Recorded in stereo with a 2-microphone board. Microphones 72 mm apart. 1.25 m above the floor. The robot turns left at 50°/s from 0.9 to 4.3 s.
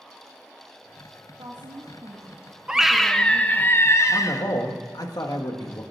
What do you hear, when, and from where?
1.3 s a woman speaking: 90° right, 1.8 m; by 3.7 s 150° left, 1.8 m
2.7 s a scream: 170° right, 1.0 m; by 4.4 s 110° left, 1.0 m
4.1 s a man speaking: 70° left (ahead or behind), 1.6 m; by 5.8 s 60° left (ahead or behind), 1.6 m